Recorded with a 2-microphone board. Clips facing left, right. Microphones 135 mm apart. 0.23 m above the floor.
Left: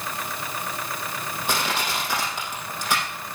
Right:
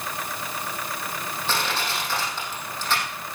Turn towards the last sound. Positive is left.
turn(degrees=10)  # may be behind; listen again after turning